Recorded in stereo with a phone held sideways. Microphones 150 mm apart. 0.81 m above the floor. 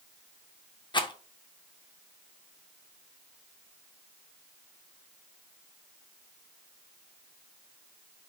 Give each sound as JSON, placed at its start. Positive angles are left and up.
{"t": 0.9, "sound": "a rattle", "side_deg": 30, "distance_m": 0.5}